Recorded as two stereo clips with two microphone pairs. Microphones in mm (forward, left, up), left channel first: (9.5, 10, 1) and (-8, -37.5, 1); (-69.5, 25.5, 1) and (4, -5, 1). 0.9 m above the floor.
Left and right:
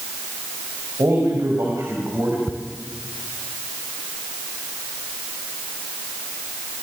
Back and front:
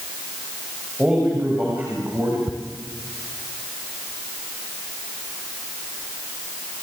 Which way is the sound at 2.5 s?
35° right.